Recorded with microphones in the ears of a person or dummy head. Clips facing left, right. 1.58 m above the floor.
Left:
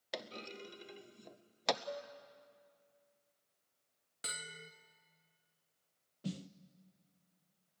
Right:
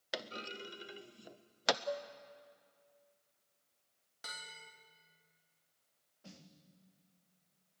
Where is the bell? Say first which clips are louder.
Left 3 dB; 35° left (ahead or behind), 0.9 m.